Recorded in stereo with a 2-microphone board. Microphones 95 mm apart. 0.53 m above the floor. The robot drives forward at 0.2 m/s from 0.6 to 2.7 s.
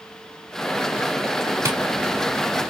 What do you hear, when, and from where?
1.6 s tapping: 25° right (ahead or behind), 0.6 m; by 1.8 s 30° right (ahead or behind), 0.5 m